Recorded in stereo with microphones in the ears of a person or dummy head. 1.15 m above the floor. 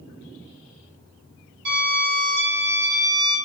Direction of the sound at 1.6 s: 55° right (ahead or behind).